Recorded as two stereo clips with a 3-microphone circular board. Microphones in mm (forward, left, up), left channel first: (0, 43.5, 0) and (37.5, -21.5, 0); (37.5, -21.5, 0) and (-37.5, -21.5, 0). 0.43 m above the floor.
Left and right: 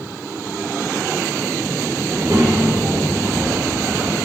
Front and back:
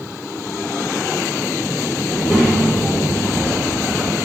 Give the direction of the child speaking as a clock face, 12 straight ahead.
3 o'clock.